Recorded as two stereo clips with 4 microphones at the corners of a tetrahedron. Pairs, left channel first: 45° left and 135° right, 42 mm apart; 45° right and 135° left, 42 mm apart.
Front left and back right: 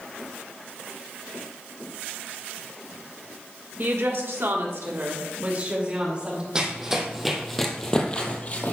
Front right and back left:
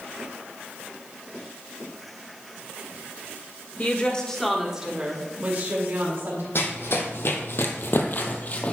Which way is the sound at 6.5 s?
65° right.